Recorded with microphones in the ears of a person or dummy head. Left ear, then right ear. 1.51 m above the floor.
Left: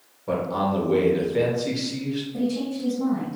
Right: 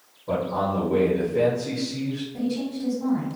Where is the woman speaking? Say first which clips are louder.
Left 2 dB; 60° left (ahead or behind), 1.6 m.